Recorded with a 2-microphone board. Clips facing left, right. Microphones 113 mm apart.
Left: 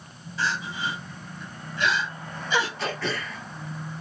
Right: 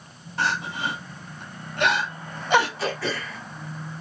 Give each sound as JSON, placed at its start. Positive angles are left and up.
{"t": 0.4, "sound": "crying", "side_deg": -65, "distance_m": 0.7}
{"t": 2.8, "sound": "throat clearing", "side_deg": -10, "distance_m": 1.5}